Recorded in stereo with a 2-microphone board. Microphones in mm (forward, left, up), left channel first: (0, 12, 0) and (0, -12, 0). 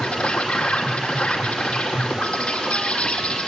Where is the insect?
50° left (ahead or behind), 5 m.